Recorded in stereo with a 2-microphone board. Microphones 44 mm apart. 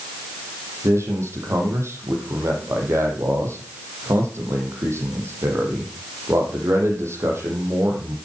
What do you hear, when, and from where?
0.8 s a man speaking: 75° right (ahead or behind), 5 m